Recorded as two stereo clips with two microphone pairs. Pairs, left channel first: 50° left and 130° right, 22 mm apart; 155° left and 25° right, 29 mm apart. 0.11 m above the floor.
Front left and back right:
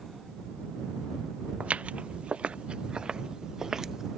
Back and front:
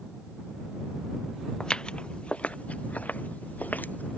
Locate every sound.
1.6 s footsteps: 145° right; by 4.2 s 160° left